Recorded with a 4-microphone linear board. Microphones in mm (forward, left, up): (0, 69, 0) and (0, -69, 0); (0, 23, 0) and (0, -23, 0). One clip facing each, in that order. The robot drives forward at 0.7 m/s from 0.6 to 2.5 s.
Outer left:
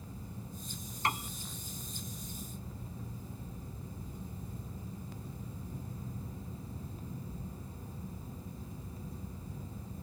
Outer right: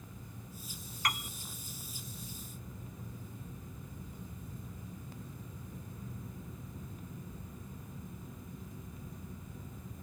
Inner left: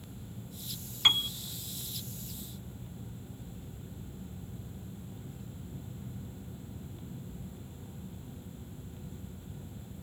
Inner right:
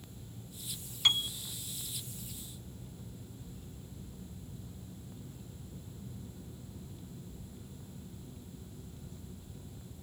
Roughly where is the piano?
Left.